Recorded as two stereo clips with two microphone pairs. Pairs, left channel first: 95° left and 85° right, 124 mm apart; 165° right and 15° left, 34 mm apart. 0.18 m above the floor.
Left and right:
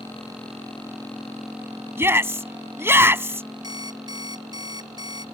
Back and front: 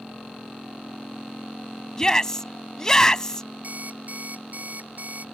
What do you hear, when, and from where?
2.0 s a shout: 120° right
3.6 s an alarm clock: 30° right